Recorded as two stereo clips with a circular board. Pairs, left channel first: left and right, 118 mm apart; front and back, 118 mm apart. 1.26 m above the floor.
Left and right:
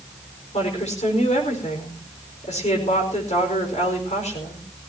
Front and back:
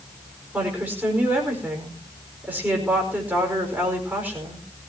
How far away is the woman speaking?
About 5 m.